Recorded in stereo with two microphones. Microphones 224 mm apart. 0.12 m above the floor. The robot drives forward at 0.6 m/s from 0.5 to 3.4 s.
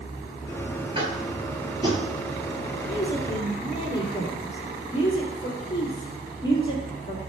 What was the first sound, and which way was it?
Tapping, 25° right (ahead or behind).